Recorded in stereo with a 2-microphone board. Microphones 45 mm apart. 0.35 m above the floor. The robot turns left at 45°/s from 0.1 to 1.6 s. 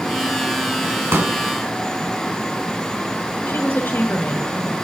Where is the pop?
65° right (ahead or behind), 4 m; by 1.4 s 60° right (ahead or behind), 4 m.